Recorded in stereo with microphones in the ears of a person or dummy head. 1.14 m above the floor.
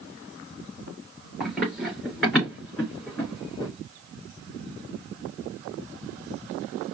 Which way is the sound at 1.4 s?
5° right (ahead or behind).